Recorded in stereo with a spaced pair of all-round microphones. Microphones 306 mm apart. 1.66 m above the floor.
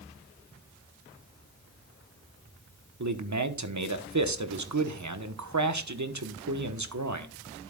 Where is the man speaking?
65° right (ahead or behind), 1.1 m.